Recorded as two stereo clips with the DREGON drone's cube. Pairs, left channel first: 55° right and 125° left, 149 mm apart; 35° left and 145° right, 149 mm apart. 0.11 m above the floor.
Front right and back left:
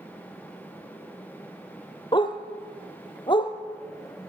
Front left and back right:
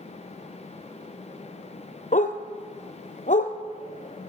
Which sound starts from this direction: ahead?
A dog barking, at 2.1 s.